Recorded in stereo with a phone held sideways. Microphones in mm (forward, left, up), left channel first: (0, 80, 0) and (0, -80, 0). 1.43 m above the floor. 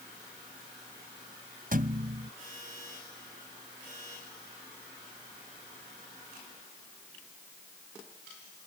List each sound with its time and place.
1.7 s a thud: 60° right (ahead or behind)